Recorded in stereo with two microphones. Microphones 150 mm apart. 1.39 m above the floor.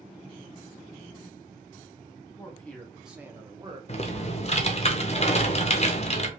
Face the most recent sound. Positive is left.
turn(degrees=45)  # may be behind; listen again after turning